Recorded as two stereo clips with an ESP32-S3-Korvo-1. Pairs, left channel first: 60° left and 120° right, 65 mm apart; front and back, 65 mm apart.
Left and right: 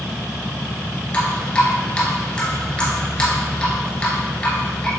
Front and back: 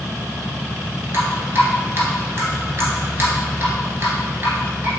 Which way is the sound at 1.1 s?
130° left.